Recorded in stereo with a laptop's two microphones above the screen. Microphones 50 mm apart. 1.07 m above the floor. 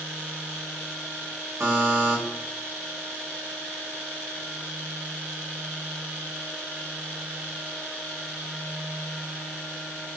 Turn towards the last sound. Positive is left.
turn(degrees=-80)